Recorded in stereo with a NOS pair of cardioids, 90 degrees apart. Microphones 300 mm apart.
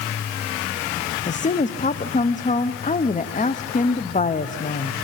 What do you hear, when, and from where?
1.3 s a woman speaking: 25° left, 1.1 m